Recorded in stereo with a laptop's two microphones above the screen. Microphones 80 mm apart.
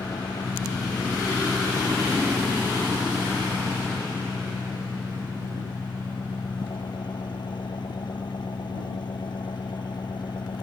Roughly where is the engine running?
Left.